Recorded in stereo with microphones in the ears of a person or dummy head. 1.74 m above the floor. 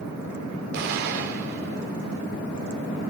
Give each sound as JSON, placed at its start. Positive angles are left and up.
{"t": 0.7, "sound": "an explosion", "side_deg": -65, "distance_m": 6.5}